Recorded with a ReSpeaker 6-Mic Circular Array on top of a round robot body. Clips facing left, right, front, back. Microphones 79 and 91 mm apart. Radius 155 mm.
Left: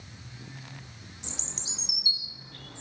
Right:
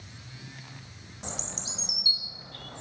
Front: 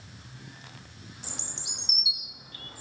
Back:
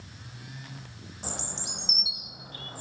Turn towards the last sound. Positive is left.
turn(degrees=-130)